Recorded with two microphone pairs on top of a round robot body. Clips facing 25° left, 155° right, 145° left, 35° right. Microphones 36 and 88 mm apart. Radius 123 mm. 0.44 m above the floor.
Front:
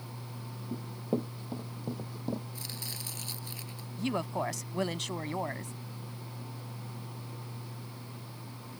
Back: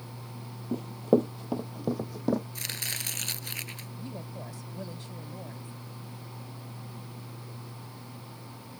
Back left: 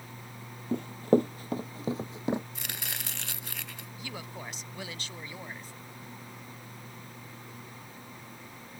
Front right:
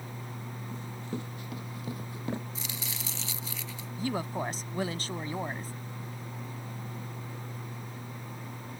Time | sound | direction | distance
0.7 | running footsteps | 175° left | ?
2.5 | chopping | straight behind | ?
4.0 | a woman speaking | 20° left | ?